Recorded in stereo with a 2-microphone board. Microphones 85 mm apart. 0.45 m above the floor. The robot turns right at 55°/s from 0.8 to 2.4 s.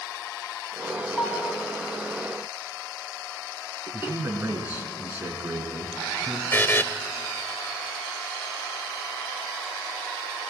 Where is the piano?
20° left (ahead or behind), 3.5 m; by 1.6 s 45° left (ahead or behind), 3.5 m.